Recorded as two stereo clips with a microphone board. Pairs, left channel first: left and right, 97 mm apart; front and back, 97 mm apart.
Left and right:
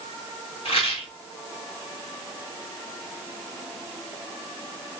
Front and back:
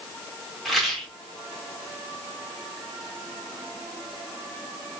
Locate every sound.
0.7 s a rattle: 90° left, 1.0 m